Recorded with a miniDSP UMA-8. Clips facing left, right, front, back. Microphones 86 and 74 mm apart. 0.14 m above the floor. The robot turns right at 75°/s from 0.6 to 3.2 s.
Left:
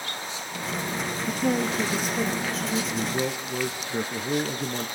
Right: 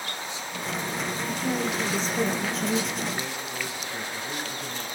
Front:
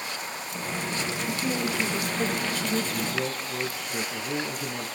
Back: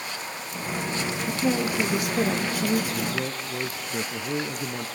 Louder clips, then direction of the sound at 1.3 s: Left 4 dB, back 5 dB; 110° left.